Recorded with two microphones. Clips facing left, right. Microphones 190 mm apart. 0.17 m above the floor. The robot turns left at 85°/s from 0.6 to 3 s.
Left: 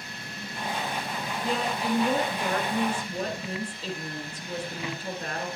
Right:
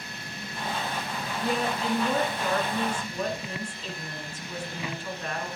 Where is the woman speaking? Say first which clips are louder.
Right 1 dB; 155° right, 1.5 m; by 5.5 s 65° left, 1.5 m.